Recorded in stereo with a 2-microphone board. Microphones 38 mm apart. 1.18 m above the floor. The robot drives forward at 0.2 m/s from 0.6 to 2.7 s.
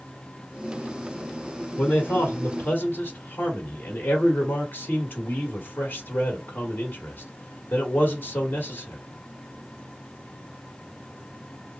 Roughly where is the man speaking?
Left.